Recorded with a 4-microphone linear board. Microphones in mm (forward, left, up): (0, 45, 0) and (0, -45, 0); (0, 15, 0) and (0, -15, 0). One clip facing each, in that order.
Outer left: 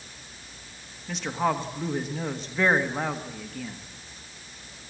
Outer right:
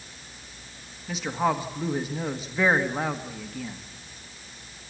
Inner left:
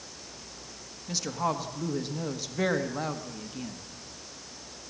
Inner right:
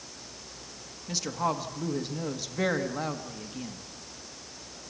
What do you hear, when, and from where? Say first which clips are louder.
1.1 s a woman speaking: outer right 1 dB, even; 5° right (ahead or behind), 1.4 m